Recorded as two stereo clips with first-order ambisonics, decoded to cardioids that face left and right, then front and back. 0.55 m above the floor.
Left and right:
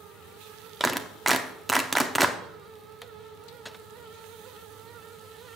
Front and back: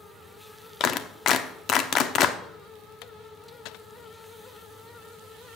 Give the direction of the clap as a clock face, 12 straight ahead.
12 o'clock.